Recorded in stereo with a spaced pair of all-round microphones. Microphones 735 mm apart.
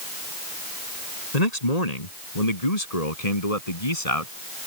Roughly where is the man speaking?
Left.